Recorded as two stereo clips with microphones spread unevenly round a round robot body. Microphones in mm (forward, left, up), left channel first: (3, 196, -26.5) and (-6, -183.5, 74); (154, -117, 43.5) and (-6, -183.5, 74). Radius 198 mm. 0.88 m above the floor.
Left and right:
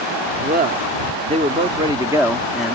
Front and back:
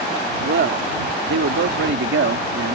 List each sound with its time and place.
0.4 s a man speaking: 160° right; by 2.8 s 170° left